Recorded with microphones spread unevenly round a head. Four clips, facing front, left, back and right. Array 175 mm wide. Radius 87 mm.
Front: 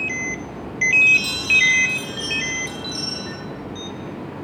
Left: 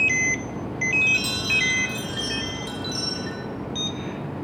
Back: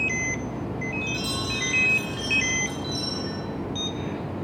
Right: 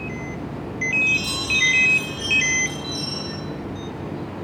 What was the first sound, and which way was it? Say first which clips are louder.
A chime: right 1 dB, front 5 dB; 60° left.